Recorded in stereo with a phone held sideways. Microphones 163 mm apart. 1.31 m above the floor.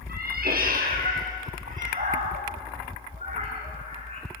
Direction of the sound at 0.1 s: 65° right (ahead or behind).